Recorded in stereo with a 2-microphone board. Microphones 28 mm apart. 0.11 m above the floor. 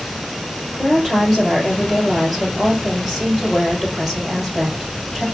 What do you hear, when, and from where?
0.8 s a woman speaking: 20° left (ahead or behind), 2.5 m